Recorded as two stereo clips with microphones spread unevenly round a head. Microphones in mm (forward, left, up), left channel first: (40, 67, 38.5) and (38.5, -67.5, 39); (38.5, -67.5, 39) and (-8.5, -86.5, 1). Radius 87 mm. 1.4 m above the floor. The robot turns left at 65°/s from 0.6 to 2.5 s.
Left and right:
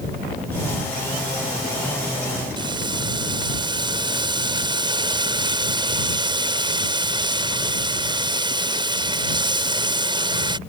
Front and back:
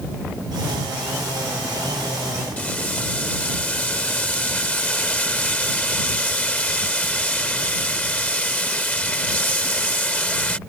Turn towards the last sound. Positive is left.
turn(degrees=-35)